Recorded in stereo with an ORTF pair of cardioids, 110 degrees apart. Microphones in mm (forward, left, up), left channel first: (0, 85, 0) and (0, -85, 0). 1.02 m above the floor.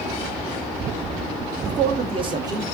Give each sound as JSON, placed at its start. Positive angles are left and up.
{"t": 1.6, "sound": "a man speaking", "azimuth_deg": -60, "distance_m": 1.0}